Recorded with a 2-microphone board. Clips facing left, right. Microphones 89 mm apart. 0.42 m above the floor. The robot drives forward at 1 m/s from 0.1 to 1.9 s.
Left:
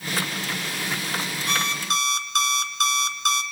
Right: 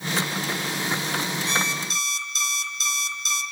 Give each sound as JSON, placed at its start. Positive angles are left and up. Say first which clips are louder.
{"t": 1.5, "sound": "an alarm clock", "louder": "left 1 dB", "side_deg": 55, "distance_m": 3.0}